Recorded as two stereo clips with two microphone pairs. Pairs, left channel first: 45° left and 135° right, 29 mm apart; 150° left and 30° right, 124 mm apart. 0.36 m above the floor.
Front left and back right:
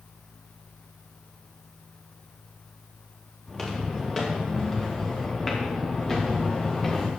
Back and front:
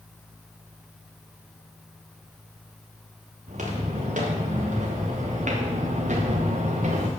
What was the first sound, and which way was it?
Footsteps, 40° right.